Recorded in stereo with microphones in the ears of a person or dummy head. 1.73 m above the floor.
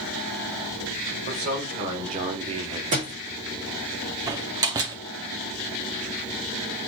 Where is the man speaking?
50° right (ahead or behind), 1.7 m; by 2.8 s 15° right (ahead or behind), 0.6 m.